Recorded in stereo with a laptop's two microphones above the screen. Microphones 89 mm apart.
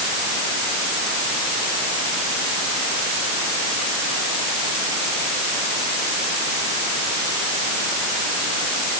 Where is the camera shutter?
No camera shutter in this recording.